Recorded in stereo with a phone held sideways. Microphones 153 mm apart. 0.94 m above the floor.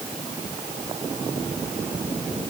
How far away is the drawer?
No drawer in this recording.